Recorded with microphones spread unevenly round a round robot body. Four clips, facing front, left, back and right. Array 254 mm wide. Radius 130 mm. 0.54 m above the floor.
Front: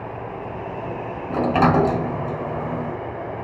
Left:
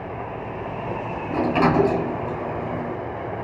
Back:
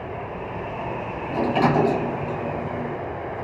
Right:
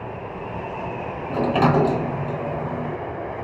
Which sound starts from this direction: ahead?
A sliding door, at 1.3 s.